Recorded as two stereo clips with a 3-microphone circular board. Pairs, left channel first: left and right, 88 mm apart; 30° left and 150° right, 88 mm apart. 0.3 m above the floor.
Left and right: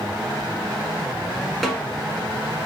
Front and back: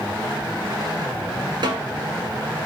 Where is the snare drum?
175° left, 1.2 m.